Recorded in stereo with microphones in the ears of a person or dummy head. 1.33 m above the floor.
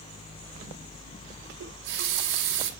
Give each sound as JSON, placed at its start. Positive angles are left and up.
{"t": 1.6, "sound": "a running tap", "side_deg": -75, "distance_m": 2.5}